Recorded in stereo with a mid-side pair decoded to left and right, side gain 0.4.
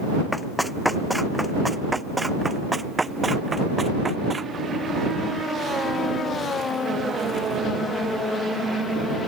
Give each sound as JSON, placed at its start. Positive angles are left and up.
{"t": 0.3, "sound": "running footsteps", "azimuth_deg": 10}